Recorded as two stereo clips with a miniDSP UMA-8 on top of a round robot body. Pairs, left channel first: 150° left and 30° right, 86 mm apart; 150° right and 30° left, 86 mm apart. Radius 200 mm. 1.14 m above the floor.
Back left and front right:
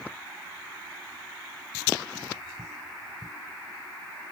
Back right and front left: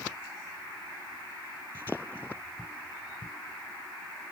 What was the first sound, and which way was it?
Only background noise.